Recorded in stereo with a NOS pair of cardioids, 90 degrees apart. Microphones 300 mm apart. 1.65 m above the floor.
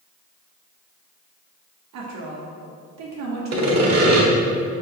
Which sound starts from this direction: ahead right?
Sawing, at 3.5 s.